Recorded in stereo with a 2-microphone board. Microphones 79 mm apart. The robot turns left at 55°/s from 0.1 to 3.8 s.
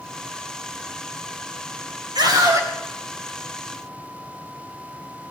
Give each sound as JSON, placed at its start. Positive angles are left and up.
{"t": 2.1, "sound": "a scream", "azimuth_deg": -115, "distance_m": 3.5}